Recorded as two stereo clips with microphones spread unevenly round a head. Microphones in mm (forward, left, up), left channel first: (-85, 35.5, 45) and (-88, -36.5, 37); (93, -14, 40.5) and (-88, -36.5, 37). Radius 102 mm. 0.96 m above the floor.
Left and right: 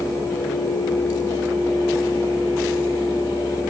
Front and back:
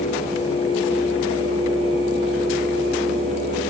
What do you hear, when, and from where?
Only background noise.